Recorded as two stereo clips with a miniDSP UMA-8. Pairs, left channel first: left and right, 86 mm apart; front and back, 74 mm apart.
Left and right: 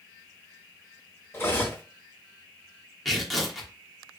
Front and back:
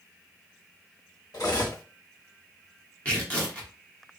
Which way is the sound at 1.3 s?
30° left.